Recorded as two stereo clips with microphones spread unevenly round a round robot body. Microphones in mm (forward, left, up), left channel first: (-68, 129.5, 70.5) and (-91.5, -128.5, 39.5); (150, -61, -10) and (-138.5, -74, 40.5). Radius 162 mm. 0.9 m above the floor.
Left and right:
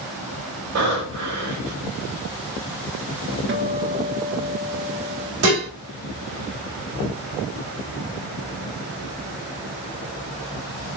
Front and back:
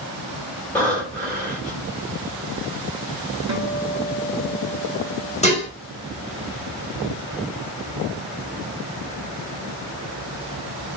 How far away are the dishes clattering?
About 2.5 m.